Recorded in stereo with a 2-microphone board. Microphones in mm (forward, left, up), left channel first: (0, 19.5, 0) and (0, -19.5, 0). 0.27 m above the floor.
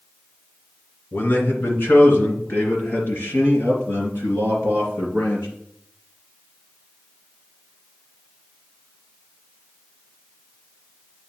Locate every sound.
1.1 s a man speaking: 65° left (ahead or behind), 2 m; by 5.5 s 75° left (ahead or behind), 5 m